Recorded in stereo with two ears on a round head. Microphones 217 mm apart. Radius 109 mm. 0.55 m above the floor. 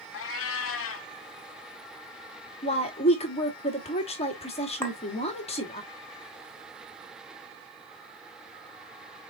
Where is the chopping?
No chopping in this recording.